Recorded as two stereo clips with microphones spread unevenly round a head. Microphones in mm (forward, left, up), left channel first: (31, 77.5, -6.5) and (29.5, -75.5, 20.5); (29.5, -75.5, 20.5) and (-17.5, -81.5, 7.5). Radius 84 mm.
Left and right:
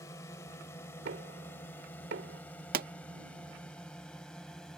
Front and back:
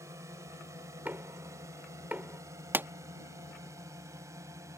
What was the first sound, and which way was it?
A drone, 160° left.